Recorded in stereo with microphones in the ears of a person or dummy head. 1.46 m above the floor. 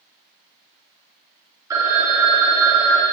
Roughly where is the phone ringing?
Centre.